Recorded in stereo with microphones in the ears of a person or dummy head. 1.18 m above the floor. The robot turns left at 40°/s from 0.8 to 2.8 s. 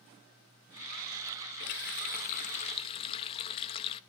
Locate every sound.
1.6 s a running tap: 80° left, 0.6 m; by 4.0 s 30° left, 0.6 m